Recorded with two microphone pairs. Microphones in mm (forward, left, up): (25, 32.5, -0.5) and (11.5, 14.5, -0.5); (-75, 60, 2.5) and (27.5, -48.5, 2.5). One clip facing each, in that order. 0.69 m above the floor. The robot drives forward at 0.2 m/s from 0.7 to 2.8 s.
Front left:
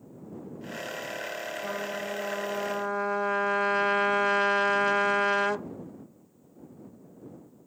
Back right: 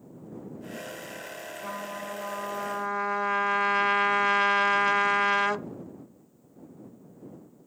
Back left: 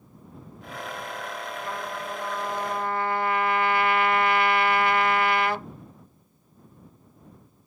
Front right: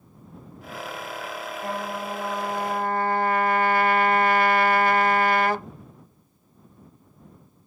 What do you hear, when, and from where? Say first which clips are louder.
1.6 s a trumpet: front left 1 dB, front right 5 dB; 40° right, 0.8 m; by 5.7 s 60° right, 0.7 m